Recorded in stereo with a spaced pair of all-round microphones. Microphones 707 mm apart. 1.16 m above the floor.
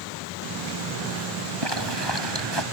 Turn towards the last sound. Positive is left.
turn(degrees=-35)  # may be behind; listen again after turning